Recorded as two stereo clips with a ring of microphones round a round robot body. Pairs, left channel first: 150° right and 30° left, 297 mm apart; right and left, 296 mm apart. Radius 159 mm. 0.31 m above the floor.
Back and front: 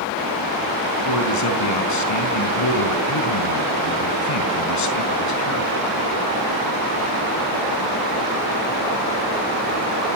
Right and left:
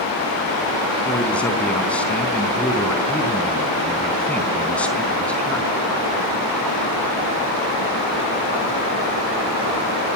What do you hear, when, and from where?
1.1 s a man speaking: 175° right, 4 m